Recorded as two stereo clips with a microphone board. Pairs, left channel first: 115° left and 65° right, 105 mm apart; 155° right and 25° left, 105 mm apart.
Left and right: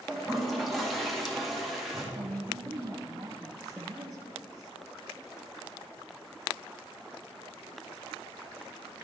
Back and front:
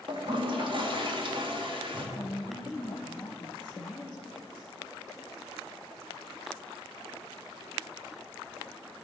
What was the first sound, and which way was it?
A toilet flushing, 25° left.